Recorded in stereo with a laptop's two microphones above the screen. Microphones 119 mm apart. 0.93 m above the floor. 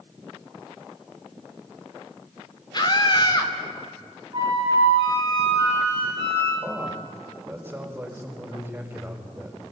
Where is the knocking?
I don't hear knocking.